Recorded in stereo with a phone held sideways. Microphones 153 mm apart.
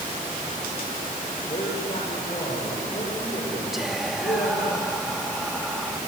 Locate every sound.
1.5 s a man speaking: 45° left (ahead or behind), 6.5 m
3.7 s whispering: centre (ahead or behind), 2.5 m